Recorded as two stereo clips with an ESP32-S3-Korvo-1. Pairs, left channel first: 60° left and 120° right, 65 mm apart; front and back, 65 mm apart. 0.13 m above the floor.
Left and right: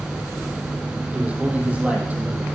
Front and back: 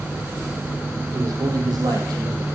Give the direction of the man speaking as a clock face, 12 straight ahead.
6 o'clock.